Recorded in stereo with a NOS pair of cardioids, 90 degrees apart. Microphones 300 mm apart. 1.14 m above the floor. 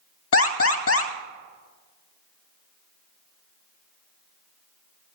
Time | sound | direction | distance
0.3 | an alarm | 50° left | 1.9 m